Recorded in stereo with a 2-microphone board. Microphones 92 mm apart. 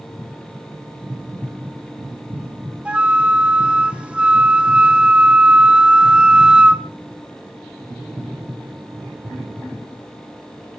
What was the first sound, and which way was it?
A flute, 15° right (ahead or behind).